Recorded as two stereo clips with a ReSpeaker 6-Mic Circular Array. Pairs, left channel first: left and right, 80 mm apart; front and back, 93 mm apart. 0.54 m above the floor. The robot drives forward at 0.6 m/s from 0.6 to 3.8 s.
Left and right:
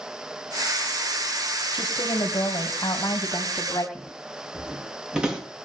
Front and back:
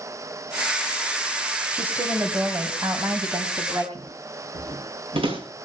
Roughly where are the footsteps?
Behind.